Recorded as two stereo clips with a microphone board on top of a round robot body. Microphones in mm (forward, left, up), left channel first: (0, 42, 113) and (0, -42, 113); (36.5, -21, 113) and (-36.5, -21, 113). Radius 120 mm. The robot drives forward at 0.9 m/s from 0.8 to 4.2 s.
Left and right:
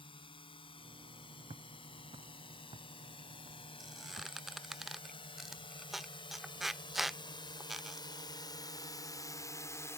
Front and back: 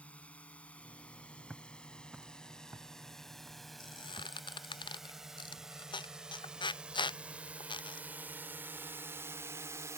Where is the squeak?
Straight ahead; by 8.1 s 5° right.